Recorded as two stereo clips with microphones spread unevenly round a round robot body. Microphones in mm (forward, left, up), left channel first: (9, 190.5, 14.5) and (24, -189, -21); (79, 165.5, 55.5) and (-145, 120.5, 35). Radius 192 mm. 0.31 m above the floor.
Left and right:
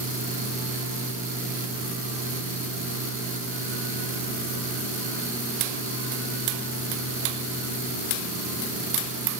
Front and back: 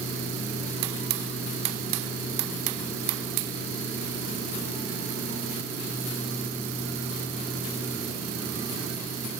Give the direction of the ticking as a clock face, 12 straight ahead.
No ticking in this recording.